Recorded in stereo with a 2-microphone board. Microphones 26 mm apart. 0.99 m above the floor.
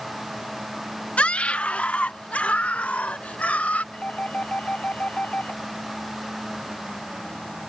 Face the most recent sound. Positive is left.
turn(degrees=75)  # may be behind; listen again after turning